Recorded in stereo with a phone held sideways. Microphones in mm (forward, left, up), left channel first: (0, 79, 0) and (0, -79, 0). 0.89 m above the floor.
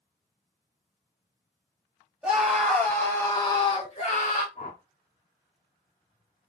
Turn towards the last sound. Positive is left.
turn(degrees=50)  # may be behind; listen again after turning